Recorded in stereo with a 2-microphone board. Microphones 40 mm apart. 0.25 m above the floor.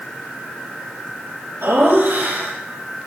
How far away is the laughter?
About 7.5 m.